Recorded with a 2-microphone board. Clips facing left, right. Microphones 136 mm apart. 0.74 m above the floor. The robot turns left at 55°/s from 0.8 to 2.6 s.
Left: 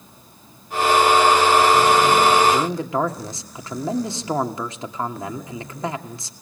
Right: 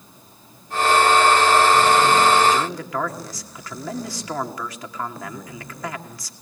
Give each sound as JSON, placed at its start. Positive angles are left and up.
{"t": 2.5, "sound": "a man speaking", "side_deg": 30, "distance_m": 2.0}